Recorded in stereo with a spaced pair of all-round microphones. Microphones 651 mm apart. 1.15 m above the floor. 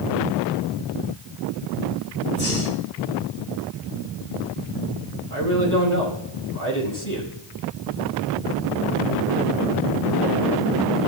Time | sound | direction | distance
2.3 | breathing | 15° left (ahead or behind) | 4 m
5.3 | a man speaking | 30° left (ahead or behind) | 8 m